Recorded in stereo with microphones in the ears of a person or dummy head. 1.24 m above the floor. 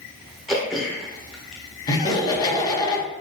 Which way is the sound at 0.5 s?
Centre (ahead or behind).